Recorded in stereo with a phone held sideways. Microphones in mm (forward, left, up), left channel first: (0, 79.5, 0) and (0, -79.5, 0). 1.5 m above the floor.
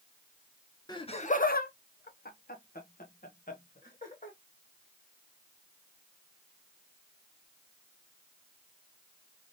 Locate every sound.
0.9 s laughter: 25° left (ahead or behind), 0.5 m; by 4.4 s 55° left (ahead or behind), 2.0 m